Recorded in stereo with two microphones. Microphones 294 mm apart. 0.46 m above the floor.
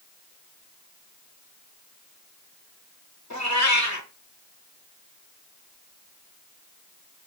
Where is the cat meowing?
65° left (ahead or behind), 1.1 m.